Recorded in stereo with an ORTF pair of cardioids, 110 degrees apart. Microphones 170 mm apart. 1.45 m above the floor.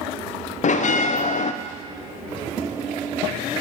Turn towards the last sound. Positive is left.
turn(degrees=50)